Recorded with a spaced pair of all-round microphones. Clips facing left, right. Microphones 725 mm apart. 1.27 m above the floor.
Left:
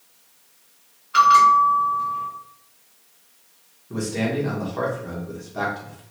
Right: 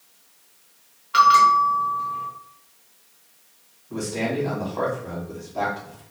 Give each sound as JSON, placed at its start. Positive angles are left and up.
{"t": 1.1, "sound": "a bell", "side_deg": -35, "distance_m": 0.9}
{"t": 3.9, "sound": "a man speaking", "side_deg": 45, "distance_m": 1.3}